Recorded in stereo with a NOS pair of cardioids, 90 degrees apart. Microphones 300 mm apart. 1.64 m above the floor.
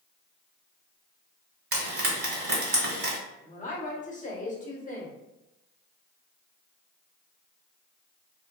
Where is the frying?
45° right, 1.8 m.